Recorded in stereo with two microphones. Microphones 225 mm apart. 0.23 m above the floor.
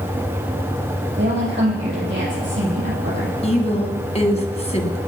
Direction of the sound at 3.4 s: 30° left (ahead or behind).